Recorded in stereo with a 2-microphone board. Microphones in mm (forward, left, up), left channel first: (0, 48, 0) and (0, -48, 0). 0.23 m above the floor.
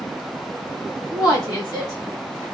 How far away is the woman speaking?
About 1.8 m.